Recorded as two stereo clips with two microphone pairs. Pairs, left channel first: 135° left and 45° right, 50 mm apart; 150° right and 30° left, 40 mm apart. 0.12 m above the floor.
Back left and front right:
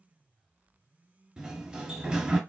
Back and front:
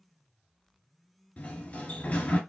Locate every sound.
1.4 s a sliding door: 115° right, 0.8 m